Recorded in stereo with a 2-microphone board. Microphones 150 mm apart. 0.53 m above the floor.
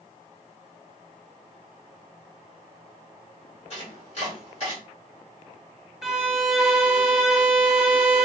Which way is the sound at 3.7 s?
50° left (ahead or behind).